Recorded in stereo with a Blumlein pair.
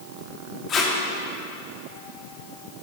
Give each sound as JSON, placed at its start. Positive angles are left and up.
{"t": 0.7, "sound": "tape being pulled", "azimuth_deg": 25, "distance_m": 2.5}